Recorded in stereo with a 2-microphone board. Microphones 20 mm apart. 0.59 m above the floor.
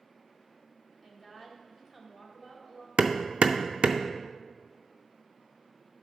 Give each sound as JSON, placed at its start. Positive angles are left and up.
{"t": 1.0, "sound": "a woman speaking", "side_deg": -20, "distance_m": 1.7}
{"t": 3.0, "sound": "hammering", "side_deg": -70, "distance_m": 0.5}